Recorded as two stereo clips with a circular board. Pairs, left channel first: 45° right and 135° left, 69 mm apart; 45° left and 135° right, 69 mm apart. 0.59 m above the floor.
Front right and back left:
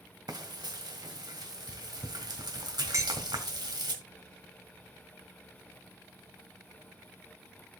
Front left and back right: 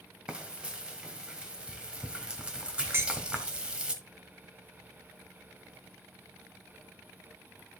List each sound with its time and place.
0.3 s frying: 150° left, 1.6 m
2.9 s dishes clattering: 175° left, 1.7 m